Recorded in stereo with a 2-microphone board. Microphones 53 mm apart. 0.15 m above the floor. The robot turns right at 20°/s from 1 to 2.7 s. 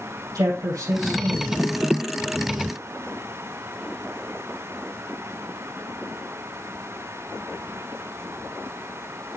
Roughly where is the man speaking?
Right.